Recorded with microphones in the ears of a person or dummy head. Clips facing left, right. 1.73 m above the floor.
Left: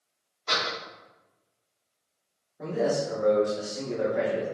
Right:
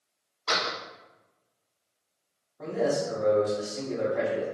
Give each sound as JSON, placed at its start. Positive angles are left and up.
{"t": 0.5, "sound": "a door slam", "side_deg": -60, "distance_m": 1.0}
{"t": 2.6, "sound": "a man speaking", "side_deg": 10, "distance_m": 1.6}